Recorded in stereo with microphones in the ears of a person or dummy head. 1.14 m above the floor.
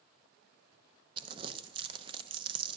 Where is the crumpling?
25° right (ahead or behind), 0.8 m.